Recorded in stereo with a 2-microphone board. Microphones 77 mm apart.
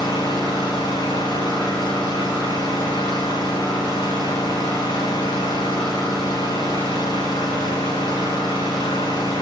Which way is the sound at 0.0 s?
80° left.